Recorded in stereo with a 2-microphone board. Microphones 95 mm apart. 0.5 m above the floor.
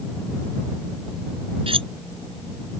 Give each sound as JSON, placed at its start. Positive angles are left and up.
{"t": 1.7, "sound": "cutlery clinking", "side_deg": -75}